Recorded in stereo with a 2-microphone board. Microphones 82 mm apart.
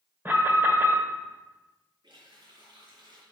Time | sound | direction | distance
0.2 | an alarm | 25° right (ahead or behind) | 1.6 m
2.0 | a running tap | 65° right (ahead or behind) | 4 m